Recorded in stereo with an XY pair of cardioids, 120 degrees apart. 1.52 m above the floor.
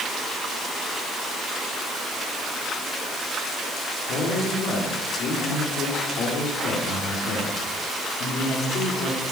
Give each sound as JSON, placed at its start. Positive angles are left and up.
{"t": 4.1, "sound": "a man speaking", "azimuth_deg": 70, "distance_m": 5.0}